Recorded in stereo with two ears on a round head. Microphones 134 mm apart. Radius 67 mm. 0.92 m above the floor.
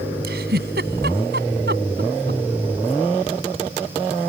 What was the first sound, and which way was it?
A giggle, 75° right (ahead or behind).